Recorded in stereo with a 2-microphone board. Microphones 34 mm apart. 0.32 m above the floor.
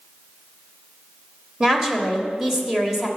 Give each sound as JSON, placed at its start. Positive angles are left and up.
{"t": 1.6, "sound": "a woman speaking", "side_deg": -15, "distance_m": 1.4}